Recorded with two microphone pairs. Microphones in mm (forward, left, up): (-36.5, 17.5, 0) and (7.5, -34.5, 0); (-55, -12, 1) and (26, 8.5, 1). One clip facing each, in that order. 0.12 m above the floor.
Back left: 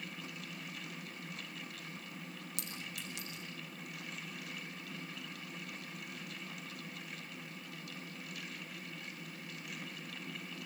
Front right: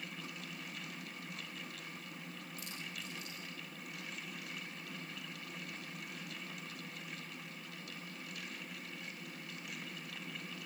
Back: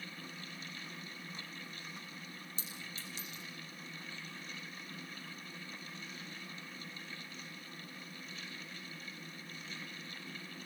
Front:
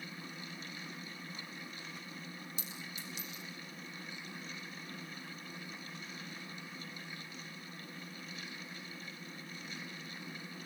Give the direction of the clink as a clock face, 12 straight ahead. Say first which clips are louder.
Even, front 1 dB; 7 o'clock.